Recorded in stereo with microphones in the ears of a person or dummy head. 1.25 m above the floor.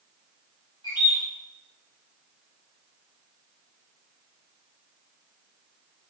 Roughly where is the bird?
Left.